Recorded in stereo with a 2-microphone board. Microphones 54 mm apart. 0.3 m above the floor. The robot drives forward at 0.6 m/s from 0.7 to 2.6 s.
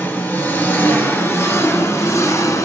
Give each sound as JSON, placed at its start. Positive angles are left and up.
{"t": 0.0, "sound": "an engine running", "side_deg": 35, "distance_m": 1.7}